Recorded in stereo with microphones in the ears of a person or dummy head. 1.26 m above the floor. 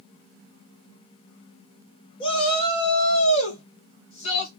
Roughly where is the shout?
Left.